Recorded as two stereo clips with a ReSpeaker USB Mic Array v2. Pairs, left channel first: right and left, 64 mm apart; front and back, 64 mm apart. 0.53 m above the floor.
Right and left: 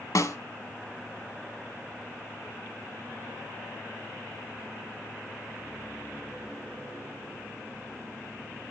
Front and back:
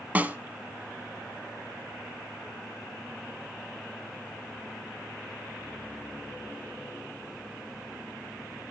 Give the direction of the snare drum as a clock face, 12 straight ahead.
4 o'clock.